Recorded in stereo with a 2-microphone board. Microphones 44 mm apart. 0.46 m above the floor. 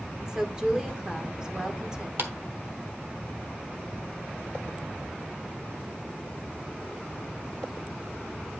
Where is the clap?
45° right (ahead or behind), 0.9 m.